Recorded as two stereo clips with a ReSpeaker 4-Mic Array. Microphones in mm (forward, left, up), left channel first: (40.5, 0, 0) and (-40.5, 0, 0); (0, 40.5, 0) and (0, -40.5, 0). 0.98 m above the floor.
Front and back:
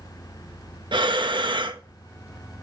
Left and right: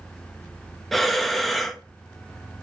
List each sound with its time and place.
0.9 s breathing: straight behind, 0.7 m